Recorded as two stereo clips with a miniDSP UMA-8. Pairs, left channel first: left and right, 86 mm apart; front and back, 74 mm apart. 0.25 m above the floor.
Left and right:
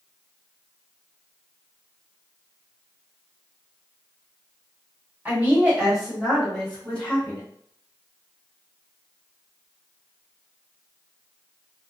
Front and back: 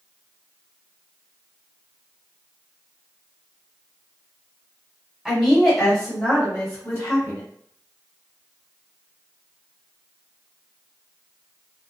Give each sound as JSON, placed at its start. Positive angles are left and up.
{"t": 5.2, "sound": "a woman speaking", "azimuth_deg": -110, "distance_m": 1.5}